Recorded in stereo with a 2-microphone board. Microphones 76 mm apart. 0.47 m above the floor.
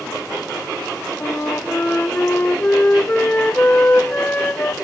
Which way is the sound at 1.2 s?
25° left (ahead or behind).